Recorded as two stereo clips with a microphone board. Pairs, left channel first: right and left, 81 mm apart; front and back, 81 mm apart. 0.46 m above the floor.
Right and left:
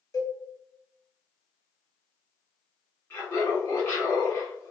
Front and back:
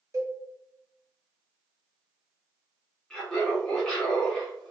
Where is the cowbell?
135° right, 0.9 m.